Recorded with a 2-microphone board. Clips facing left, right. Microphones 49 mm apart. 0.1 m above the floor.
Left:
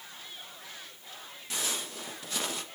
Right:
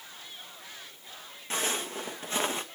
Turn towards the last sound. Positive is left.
turn(degrees=-30)  # may be behind; listen again after turning